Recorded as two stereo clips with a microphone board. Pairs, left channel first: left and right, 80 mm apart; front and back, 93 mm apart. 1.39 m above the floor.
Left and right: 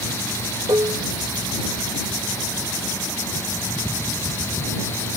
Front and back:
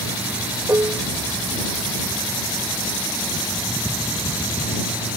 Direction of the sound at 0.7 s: 125° right.